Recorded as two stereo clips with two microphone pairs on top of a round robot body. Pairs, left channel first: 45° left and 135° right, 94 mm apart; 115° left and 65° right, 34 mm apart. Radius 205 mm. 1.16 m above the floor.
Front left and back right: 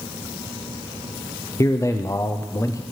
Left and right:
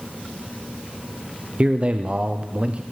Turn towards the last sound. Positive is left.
turn(degrees=-5)